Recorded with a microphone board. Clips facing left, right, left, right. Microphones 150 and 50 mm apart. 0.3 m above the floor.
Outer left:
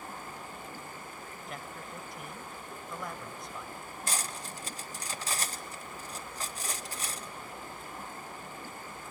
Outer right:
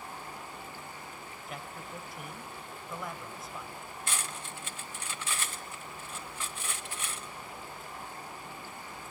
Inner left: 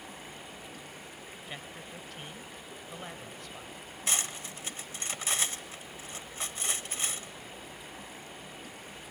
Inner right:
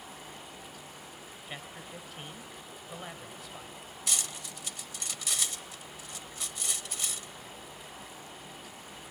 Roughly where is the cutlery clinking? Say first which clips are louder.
Outer left 2 dB, inner left 3 dB; left.